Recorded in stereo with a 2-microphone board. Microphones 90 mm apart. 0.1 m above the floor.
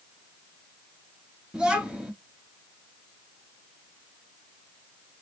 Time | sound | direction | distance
1.5 | a child speaking | 10° right (ahead or behind) | 1.4 m